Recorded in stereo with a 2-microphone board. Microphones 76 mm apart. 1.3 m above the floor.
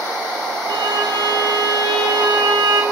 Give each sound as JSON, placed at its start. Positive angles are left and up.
{"t": 0.7, "sound": "a violin", "side_deg": -65, "distance_m": 1.0}